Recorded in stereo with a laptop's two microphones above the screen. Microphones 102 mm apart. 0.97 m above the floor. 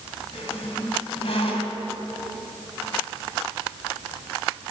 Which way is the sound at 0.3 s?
75° left (ahead or behind).